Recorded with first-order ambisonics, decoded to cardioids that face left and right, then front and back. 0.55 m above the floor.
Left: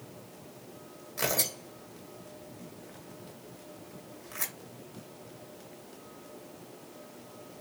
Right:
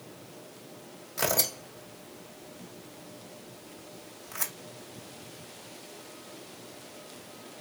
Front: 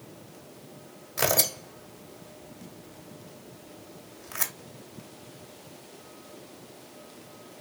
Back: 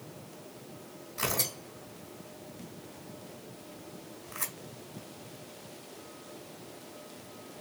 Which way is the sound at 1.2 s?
5° right.